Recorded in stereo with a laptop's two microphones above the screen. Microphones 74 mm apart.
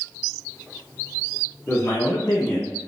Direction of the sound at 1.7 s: 35° left (ahead or behind).